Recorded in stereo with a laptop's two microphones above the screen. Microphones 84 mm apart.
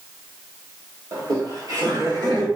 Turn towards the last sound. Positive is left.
turn(degrees=-60)  # may be behind; listen again after turning